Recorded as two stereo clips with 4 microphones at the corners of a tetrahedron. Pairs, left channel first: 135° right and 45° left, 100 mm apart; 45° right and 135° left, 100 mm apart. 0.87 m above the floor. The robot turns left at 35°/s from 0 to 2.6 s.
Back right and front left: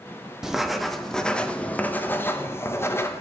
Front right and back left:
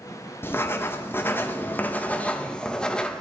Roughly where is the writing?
Ahead right.